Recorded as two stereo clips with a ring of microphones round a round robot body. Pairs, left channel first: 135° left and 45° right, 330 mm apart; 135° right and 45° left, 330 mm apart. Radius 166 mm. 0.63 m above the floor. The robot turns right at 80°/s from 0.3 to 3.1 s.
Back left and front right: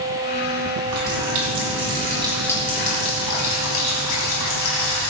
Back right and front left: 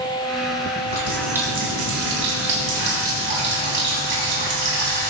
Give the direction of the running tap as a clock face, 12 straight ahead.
3 o'clock.